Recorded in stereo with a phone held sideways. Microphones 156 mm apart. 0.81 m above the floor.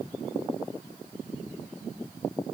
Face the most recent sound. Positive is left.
No sound to turn to.